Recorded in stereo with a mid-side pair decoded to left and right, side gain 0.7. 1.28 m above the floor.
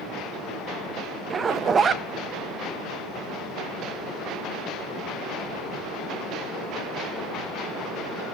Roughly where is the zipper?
Ahead right.